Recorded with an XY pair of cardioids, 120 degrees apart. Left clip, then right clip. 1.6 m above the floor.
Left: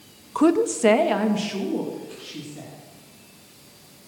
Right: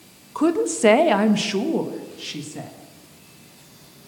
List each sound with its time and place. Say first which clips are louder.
0.3 s a woman speaking: left 1 dB; 25° left, 0.8 m; by 2.7 s 55° right, 2.5 m